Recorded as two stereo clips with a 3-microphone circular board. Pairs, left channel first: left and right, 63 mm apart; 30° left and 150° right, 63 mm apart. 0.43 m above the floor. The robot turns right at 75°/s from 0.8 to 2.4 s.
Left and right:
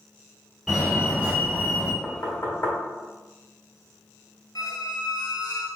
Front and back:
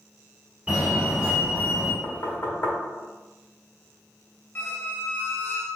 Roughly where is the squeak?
Left.